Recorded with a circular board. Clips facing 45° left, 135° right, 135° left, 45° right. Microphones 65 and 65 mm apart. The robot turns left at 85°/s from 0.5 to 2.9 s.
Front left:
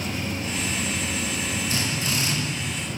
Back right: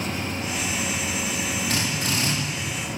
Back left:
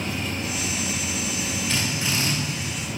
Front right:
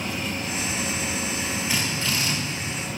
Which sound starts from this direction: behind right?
A drill, at 1.7 s.